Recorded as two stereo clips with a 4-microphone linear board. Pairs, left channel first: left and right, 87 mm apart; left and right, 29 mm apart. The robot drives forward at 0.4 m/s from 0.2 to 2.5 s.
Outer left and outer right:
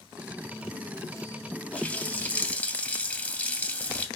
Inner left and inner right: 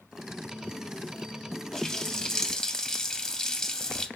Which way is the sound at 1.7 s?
15° left (ahead or behind).